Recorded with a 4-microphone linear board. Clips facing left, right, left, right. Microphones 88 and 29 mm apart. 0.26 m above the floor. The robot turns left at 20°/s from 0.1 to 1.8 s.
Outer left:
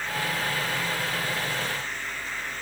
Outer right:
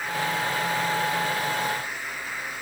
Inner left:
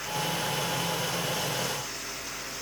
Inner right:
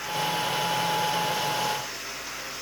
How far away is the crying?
No crying in this recording.